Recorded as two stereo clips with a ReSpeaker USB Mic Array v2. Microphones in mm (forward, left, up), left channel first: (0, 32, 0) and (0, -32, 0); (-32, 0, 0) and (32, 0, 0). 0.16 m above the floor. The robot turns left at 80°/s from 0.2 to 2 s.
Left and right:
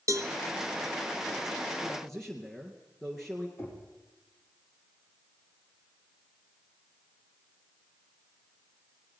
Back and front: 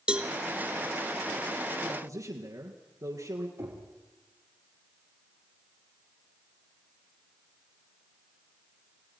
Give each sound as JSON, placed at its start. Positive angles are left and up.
{"t": 0.1, "sound": "a cowbell", "azimuth_deg": -70, "distance_m": 1.0}
{"t": 1.8, "sound": "a man speaking", "azimuth_deg": 20, "distance_m": 2.0}
{"t": 3.6, "sound": "knocking", "azimuth_deg": 45, "distance_m": 4.0}